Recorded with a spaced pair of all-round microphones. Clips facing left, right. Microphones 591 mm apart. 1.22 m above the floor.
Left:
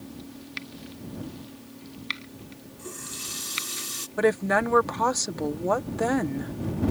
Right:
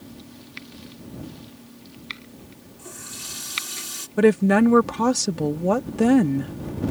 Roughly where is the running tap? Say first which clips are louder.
Left 2 dB; centre.